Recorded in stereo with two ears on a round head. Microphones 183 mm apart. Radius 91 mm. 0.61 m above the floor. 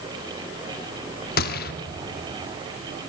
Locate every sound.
1.4 s a gunshot: 50° left (ahead or behind), 0.8 m